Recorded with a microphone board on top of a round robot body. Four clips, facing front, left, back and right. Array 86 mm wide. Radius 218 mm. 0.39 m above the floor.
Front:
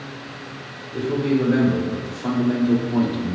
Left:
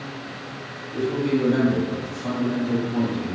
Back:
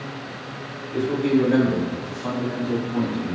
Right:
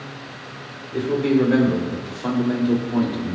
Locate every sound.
0.9 s a man speaking: 110° right, 3.5 m; by 3.4 s 40° right, 2 m